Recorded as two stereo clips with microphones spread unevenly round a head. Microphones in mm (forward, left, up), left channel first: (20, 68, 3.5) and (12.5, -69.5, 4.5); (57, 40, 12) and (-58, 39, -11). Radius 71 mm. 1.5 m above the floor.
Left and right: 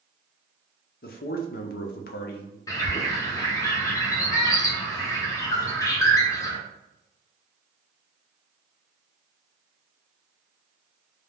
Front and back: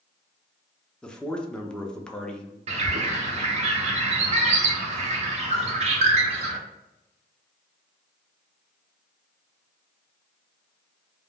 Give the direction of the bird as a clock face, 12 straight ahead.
7 o'clock.